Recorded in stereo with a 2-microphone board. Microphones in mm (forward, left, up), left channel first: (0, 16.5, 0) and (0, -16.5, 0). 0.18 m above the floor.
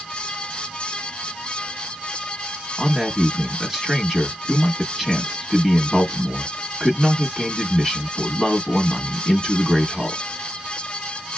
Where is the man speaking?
Centre (ahead or behind), 1.1 m.